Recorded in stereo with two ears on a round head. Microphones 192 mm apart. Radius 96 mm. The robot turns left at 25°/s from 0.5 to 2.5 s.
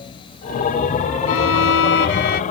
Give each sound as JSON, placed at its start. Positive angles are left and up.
{"t": 1.3, "sound": "a violin", "side_deg": 75}